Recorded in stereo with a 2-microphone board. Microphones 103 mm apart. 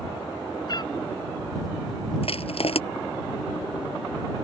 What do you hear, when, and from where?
0.7 s a cat meowing: 45° left (ahead or behind)
2.2 s crushing: 70° left (ahead or behind)